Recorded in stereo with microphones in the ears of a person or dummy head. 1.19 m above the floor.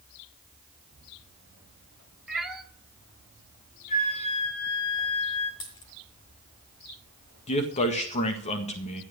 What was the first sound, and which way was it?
A cat meowing, 5° right (ahead or behind).